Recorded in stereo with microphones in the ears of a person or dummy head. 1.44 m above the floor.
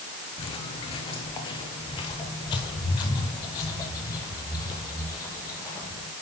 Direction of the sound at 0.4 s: 35° left (ahead or behind).